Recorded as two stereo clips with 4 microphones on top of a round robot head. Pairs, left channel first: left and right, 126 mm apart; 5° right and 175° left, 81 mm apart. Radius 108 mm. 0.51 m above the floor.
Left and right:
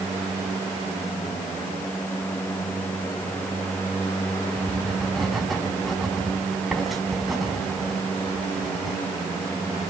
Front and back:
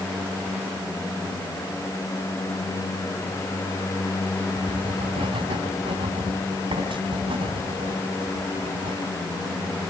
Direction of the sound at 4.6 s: Straight behind.